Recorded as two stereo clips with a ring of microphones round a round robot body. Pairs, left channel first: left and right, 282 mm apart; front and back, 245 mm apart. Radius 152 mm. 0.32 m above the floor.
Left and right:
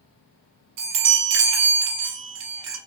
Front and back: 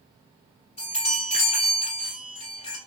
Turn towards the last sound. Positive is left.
turn(degrees=-70)